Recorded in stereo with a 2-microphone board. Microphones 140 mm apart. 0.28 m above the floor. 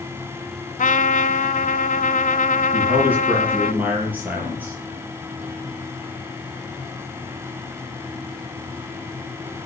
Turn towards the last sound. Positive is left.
turn(degrees=-10)  # may be behind; listen again after turning